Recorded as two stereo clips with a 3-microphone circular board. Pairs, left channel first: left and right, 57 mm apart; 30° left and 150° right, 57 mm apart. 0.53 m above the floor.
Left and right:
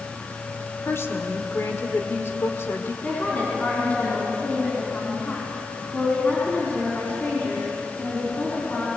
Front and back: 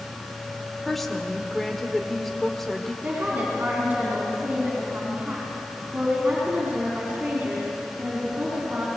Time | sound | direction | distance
0.8 | a woman speaking | 115° left | 1.7 m
3.0 | a woman speaking | 150° left | 5 m